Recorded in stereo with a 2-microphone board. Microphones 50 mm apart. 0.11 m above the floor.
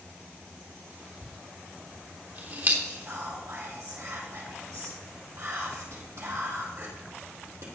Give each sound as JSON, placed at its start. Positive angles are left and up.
{"t": 1.2, "sound": "a dropped coin", "side_deg": -40, "distance_m": 3.0}
{"t": 2.8, "sound": "whispering", "side_deg": -65, "distance_m": 3.5}